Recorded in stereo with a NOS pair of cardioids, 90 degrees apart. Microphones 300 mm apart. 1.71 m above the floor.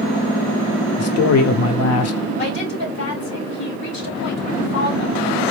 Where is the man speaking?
55° left, 0.8 m.